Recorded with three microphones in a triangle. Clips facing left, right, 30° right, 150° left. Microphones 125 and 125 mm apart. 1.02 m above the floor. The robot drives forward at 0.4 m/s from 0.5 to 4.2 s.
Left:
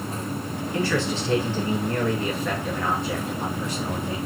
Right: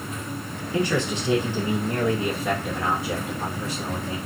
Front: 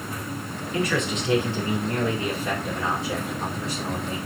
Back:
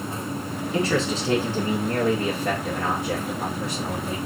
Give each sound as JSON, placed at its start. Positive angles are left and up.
{"t": 0.7, "sound": "a man speaking", "azimuth_deg": -155, "distance_m": 0.6}